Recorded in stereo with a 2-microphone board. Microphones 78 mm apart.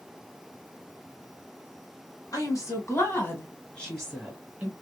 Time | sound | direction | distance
2.3 | a woman speaking | 50° left (ahead or behind) | 1.6 m